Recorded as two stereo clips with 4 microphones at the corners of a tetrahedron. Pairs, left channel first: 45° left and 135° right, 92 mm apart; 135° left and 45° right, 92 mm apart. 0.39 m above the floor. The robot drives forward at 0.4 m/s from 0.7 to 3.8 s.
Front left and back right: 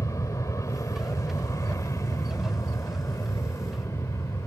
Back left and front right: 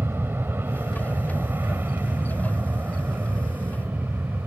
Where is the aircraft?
10° left.